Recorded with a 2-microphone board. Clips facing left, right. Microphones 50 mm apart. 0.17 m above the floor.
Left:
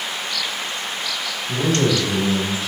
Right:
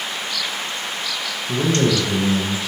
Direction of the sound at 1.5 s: 60° right (ahead or behind).